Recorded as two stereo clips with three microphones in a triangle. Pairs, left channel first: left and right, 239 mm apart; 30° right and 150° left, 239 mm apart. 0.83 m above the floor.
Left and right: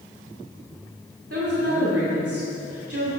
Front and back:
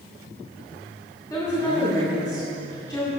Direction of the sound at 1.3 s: 105° right.